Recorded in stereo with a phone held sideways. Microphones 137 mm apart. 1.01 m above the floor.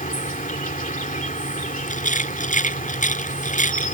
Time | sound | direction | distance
0.0 | an insect | 75° left (ahead or behind) | ?
1.9 | a rattle | 70° left (ahead or behind) | ?